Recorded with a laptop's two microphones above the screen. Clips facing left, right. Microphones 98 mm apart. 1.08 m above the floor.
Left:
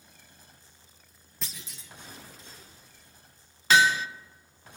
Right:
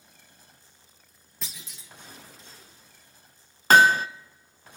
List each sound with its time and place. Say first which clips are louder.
1.4 s a clunk: left 1 dB; centre (ahead or behind), 1.6 m
3.7 s hammering: right 5 dB; 50° right (ahead or behind), 0.6 m